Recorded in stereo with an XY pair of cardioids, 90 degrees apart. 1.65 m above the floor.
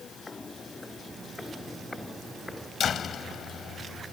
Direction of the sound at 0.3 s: 30° left.